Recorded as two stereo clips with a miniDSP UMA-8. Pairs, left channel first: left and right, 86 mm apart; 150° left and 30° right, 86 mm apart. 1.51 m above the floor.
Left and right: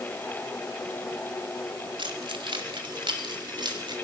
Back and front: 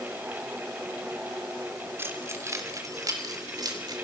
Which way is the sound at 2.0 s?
90° right.